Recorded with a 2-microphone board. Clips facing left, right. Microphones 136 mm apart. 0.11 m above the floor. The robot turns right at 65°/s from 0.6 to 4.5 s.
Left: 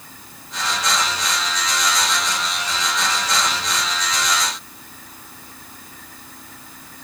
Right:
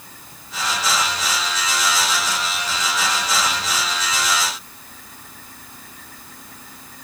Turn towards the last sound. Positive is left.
No sound to turn to.